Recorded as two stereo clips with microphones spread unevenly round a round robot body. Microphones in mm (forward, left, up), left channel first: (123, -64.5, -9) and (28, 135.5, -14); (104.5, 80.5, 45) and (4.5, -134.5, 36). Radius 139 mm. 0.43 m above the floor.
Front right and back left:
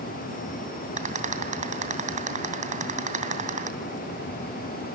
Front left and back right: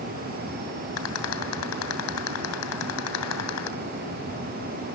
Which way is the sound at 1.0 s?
60° left.